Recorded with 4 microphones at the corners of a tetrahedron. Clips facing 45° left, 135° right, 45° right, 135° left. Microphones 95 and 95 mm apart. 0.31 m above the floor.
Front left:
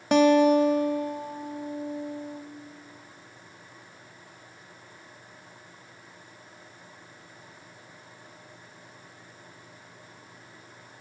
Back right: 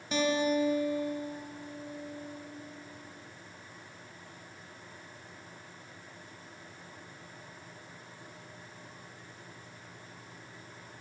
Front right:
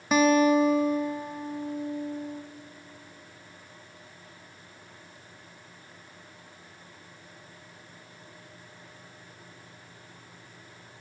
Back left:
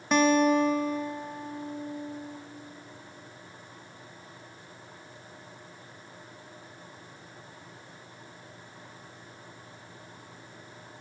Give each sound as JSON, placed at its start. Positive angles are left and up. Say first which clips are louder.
{"t": 0.1, "sound": "a guitar", "louder": "front left 10 dB, front right 2 dB", "azimuth_deg": 40, "distance_m": 0.8}